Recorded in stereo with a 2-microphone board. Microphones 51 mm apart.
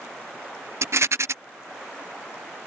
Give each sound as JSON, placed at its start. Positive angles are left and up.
{"t": 0.8, "sound": "a rattle", "side_deg": -60}